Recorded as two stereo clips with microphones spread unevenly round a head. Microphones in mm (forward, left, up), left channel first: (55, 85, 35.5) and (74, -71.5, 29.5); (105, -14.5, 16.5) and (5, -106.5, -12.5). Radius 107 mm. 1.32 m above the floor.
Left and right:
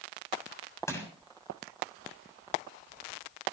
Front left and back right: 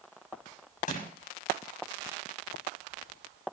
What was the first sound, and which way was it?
Crushing, 25° left.